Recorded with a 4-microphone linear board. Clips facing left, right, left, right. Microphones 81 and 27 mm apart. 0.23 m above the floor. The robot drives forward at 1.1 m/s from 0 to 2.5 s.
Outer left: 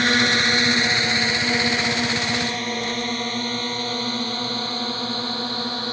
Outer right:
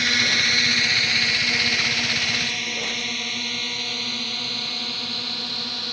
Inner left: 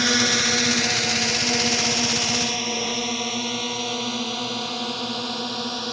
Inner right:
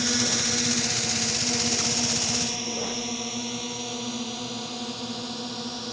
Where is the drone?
40° left (ahead or behind); by 6.0 s 35° left (ahead or behind).